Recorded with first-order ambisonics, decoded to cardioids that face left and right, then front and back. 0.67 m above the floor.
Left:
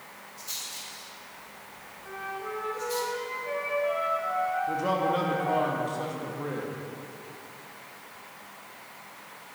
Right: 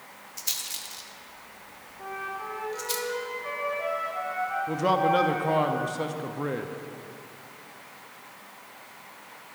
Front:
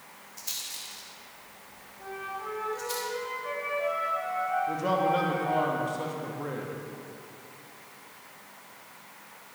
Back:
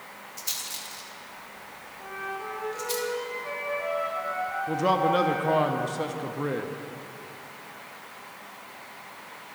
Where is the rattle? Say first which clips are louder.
Right 4 dB, back 3 dB; 105° right, 1.0 m.